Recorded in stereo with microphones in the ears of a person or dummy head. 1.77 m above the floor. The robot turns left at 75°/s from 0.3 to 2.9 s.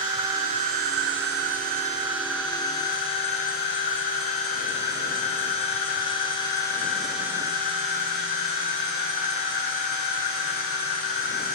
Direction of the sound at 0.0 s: 30° right.